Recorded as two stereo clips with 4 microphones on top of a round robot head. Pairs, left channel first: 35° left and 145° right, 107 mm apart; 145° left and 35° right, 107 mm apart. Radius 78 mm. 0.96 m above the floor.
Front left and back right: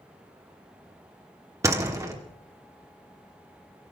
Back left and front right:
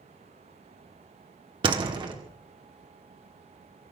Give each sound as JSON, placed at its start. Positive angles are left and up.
{"t": 1.6, "sound": "a door slam", "azimuth_deg": -85, "distance_m": 1.9}